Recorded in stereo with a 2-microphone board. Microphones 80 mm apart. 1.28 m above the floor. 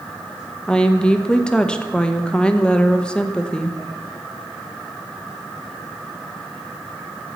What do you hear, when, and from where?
0.7 s a woman speaking: 10° left (ahead or behind), 0.8 m